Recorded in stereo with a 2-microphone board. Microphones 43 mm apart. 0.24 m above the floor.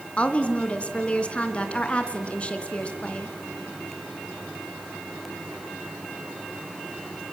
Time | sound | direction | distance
0.2 | a woman speaking | 25° left (ahead or behind) | 2.5 m